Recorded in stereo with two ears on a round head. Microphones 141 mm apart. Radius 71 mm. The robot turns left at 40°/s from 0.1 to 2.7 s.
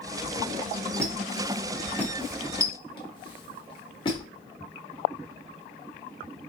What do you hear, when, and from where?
1.0 s a squeak: 20° right (ahead or behind), 1.1 m; by 4.2 s 30° left (ahead or behind), 1.1 m